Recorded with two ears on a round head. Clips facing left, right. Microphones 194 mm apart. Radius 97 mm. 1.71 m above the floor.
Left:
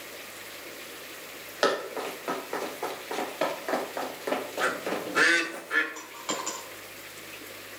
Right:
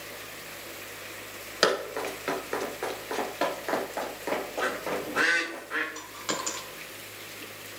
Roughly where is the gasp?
No gasp in this recording.